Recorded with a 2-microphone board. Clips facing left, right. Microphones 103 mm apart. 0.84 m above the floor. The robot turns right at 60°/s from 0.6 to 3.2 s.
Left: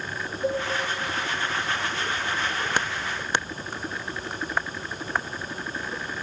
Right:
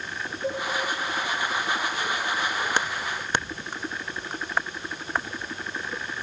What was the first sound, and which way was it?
Dishes clattering, 70° left (ahead or behind).